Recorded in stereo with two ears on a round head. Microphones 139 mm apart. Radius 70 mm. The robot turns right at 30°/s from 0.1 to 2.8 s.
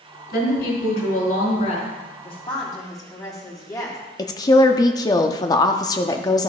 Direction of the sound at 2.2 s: 40° left (ahead or behind).